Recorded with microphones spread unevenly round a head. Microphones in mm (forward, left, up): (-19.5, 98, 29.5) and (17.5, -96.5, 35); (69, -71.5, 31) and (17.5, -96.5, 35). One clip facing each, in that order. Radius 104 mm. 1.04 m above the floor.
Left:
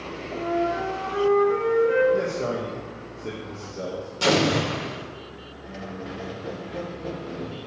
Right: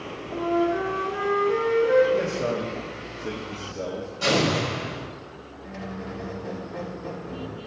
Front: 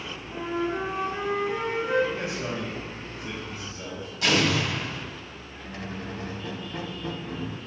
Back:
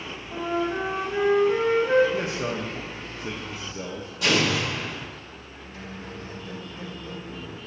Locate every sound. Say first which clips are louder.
0.3 s a flute: right 2 dB, back 2 dB; 125° right, 1.7 m
2.1 s a man speaking: even, back 3 dB; 165° right, 0.9 m
4.2 s an explosion: left 2 dB, even; 145° left, 1.5 m
5.6 s a squeak: even, front 4 dB; 15° left, 0.6 m